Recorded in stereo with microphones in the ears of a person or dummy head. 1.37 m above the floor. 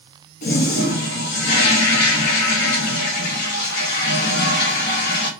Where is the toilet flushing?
55° left (ahead or behind), 1.2 m.